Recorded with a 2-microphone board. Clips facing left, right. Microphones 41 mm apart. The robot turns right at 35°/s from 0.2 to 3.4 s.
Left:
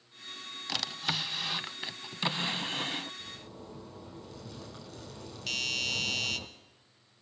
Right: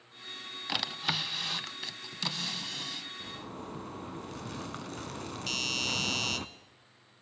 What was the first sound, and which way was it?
A drawer, 20° right.